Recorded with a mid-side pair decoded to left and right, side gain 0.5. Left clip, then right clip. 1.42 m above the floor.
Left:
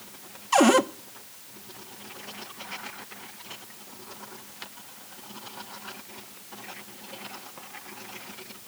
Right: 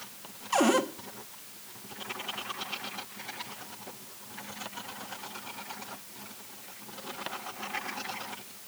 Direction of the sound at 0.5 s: 35° left.